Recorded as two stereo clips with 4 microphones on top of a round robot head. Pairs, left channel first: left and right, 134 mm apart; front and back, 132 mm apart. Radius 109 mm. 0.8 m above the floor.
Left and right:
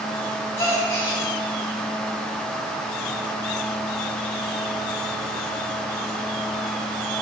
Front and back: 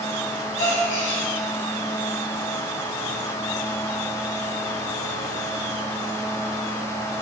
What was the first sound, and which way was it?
A gasp, 25° left.